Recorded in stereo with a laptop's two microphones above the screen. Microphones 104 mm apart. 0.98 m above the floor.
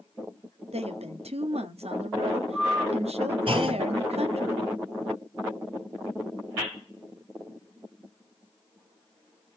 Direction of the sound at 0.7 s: 80° right.